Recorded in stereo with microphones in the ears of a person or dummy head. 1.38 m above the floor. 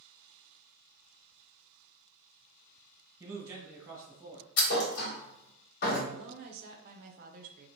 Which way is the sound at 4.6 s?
60° left (ahead or behind).